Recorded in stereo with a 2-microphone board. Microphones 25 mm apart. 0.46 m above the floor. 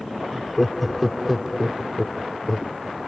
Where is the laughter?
Centre (ahead or behind).